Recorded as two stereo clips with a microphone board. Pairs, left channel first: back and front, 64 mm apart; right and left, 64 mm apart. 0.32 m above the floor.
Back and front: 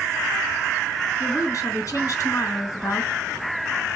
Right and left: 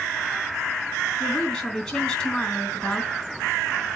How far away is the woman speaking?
About 3.5 m.